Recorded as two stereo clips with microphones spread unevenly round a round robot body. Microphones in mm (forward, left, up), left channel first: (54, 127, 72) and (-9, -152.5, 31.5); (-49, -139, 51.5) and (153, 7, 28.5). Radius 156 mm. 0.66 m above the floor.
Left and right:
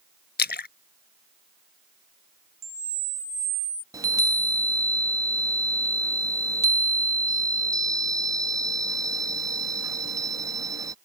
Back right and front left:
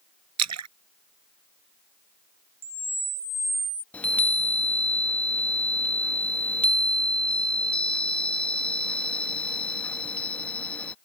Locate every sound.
0.4 s a splash: 20° left
2.6 s a camera shutter: 45° right
3.9 s a chime: 55° right